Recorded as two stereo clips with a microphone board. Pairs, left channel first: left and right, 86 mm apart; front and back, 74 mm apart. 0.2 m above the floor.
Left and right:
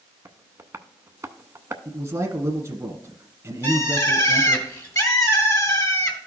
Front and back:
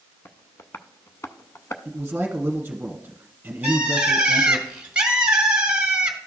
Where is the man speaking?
120° right, 1.4 m.